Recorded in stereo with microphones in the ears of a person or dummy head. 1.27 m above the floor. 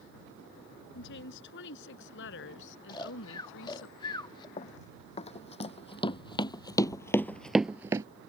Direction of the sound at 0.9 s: 65° left (ahead or behind).